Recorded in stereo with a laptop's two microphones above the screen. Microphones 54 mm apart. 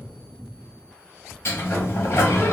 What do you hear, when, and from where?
1.4 s a sliding door: 50° left (ahead or behind), 1.1 m